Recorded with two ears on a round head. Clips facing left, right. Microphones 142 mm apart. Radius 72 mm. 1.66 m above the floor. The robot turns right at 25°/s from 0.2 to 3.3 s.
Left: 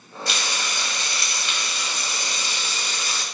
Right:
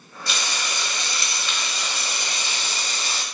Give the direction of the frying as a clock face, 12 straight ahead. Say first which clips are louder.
Even; 3 o'clock.